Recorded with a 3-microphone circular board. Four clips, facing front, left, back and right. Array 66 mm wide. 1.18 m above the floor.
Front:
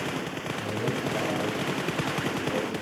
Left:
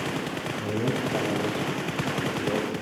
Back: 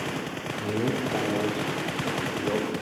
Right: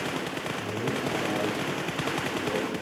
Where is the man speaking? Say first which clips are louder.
Left 4 dB, back 3 dB; 170° left, 3.5 m; by 2.7 s 170° right, 5.5 m.